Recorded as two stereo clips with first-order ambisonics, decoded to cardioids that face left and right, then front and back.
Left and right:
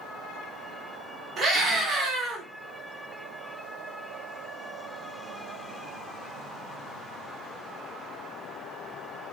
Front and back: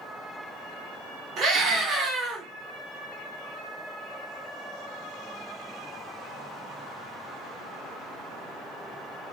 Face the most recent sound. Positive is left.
turn(degrees=-150)